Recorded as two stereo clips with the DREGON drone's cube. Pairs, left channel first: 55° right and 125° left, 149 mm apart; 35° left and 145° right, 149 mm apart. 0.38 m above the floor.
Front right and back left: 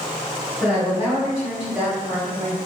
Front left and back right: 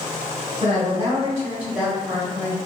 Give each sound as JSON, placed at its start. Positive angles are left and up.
{"t": 0.6, "sound": "a woman speaking", "azimuth_deg": -145, "distance_m": 1.5}